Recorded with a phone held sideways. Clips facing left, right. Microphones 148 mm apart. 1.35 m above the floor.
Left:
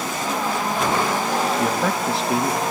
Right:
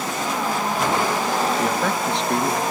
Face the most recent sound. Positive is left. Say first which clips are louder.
# even
turn(degrees=5)  # may be behind; listen again after turning